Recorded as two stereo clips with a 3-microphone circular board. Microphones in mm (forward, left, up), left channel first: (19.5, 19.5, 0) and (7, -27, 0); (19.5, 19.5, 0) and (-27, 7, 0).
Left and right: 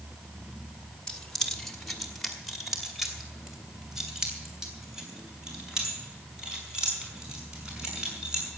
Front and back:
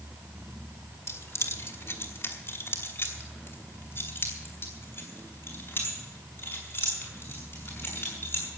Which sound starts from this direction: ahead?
Keys jangling, at 1.1 s.